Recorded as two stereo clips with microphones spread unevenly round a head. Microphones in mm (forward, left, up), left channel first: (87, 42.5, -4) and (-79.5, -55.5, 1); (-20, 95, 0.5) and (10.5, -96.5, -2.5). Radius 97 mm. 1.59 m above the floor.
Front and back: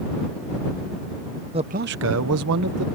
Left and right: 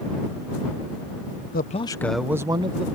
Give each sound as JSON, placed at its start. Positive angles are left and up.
{"t": 1.5, "sound": "a man speaking", "azimuth_deg": 145}